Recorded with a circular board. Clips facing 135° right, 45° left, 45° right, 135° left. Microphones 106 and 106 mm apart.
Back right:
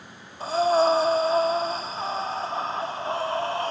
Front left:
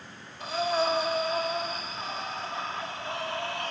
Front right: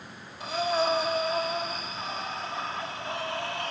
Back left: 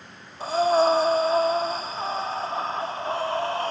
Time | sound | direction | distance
0.4 | breathing | straight behind | 1.0 m